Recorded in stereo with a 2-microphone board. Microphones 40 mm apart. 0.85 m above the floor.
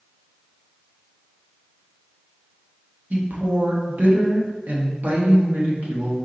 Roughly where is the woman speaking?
Right.